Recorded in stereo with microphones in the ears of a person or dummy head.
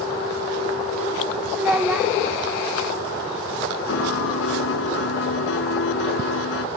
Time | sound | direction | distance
1.6 | a child speaking | 5° right (ahead or behind) | ?
3.9 | a piano | 75° left (ahead or behind) | ?